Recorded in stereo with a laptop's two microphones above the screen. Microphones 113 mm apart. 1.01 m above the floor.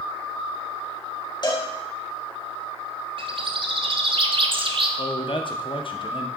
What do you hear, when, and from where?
1.4 s a cowbell: 40° left (ahead or behind), 1.1 m
3.2 s a bird: 50° right (ahead or behind), 0.6 m
5.0 s a man speaking: 45° left (ahead or behind), 0.6 m